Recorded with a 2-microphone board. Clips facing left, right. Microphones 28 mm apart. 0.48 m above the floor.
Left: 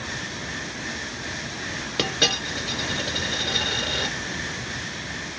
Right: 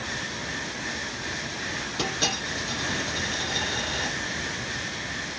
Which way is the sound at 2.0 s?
50° left (ahead or behind).